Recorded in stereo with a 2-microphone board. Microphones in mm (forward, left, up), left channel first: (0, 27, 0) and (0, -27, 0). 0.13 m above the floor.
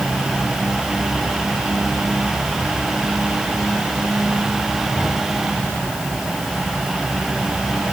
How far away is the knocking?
I don't hear knocking.